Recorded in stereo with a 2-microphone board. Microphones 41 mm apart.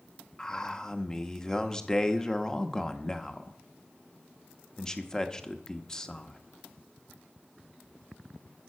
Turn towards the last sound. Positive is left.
turn(degrees=15)  # may be behind; listen again after turning